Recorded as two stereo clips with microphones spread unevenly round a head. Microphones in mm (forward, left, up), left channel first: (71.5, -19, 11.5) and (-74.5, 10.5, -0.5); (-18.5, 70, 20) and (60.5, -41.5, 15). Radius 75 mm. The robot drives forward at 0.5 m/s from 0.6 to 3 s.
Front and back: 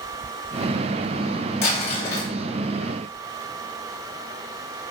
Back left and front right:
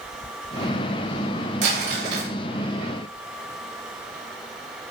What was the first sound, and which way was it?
Crumpling, 60° right.